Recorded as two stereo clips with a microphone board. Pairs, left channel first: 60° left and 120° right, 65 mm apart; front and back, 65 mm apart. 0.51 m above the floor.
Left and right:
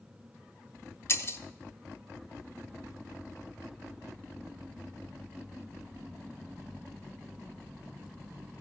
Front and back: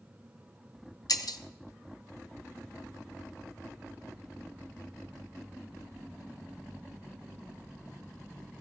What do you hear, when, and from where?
1.1 s breaking glass: 10° left, 0.6 m